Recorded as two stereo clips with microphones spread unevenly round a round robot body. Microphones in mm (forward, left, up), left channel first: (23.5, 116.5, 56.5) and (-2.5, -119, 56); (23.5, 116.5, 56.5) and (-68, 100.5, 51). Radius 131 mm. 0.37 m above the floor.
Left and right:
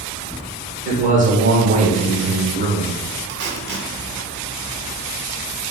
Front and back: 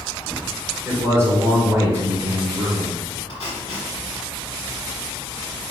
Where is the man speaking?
125° right, 1.4 m.